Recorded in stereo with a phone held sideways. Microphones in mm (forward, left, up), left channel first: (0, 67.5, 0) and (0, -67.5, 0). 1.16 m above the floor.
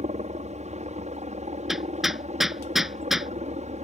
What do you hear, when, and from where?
0.0 s a helicopter: 60° right (ahead or behind)
1.7 s hammering: centre (ahead or behind)